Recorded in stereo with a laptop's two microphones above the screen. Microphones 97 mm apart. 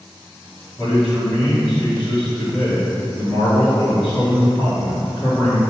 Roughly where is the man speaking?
Centre.